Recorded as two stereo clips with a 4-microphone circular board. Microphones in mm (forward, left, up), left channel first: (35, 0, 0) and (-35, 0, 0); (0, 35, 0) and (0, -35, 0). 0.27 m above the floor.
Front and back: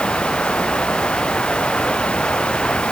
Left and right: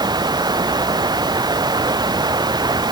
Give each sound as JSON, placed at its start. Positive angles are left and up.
{"t": 0.0, "sound": "running water", "azimuth_deg": -75}